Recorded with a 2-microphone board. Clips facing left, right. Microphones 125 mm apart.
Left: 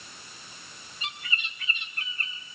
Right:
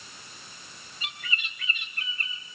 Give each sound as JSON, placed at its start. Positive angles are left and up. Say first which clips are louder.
{"t": 1.0, "sound": "a bird", "louder": "left 1 dB", "side_deg": 25, "distance_m": 3.5}